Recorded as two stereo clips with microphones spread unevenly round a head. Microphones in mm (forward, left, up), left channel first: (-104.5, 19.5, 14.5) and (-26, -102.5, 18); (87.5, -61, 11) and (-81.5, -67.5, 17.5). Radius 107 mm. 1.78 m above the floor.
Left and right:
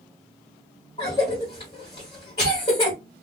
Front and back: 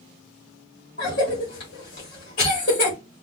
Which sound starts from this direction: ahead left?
A cough, at 1.0 s.